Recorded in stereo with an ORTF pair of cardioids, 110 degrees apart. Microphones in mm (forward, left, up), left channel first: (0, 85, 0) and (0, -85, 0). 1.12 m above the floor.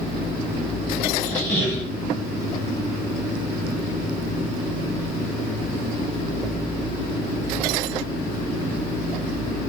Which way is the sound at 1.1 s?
10° left.